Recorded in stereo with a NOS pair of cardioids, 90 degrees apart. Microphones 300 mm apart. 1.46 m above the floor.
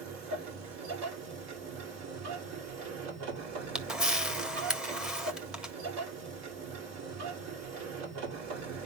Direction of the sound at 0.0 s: 65° right.